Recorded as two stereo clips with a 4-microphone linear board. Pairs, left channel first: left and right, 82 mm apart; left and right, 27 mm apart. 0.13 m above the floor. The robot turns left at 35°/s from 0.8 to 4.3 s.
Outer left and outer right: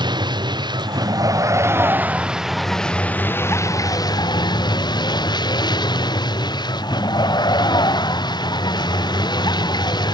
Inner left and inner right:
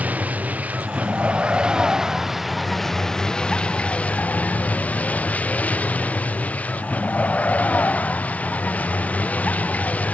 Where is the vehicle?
115° right; by 10.2 s 120° left.